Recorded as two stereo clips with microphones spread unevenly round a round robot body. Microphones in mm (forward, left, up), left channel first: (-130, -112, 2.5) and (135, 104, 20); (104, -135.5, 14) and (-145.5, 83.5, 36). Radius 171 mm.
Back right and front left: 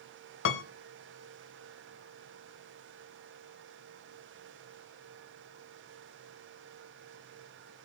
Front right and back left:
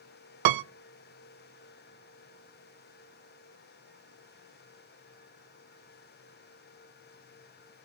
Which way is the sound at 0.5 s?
165° left.